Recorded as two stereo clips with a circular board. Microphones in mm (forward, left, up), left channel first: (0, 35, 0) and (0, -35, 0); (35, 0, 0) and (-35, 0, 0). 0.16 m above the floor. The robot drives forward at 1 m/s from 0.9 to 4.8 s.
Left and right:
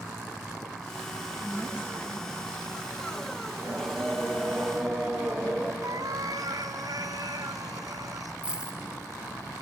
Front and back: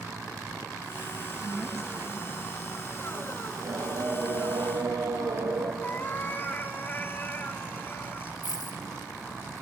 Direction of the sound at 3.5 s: Straight behind.